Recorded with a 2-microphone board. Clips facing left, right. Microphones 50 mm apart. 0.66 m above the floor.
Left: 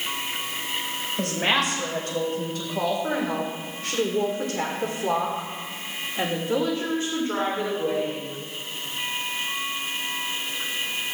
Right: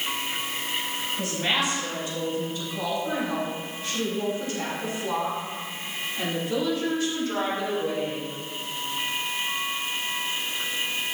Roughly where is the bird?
No bird in this recording.